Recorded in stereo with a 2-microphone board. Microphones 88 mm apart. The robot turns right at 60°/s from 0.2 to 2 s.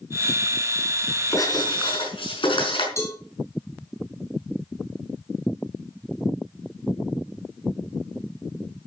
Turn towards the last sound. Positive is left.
turn(degrees=35)  # may be behind; listen again after turning